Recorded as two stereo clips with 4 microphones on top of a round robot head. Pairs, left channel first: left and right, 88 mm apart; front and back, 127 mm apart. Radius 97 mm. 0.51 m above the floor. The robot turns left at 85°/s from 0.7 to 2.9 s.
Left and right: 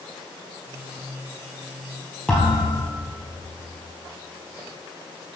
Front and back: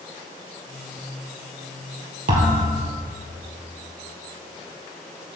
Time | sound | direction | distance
2.3 | a thud | 175° left | 2.5 m